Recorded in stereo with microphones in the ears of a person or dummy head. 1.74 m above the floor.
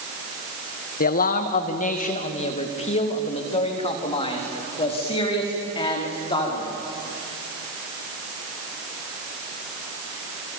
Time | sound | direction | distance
1.0 | a man speaking | 45° left (ahead or behind) | 1.6 m